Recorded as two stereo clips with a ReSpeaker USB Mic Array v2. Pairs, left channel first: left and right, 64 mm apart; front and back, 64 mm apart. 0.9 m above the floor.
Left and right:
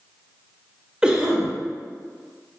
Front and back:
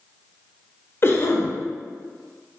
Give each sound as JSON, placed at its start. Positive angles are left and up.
{"t": 1.0, "sound": "a cough", "azimuth_deg": -15, "distance_m": 0.6}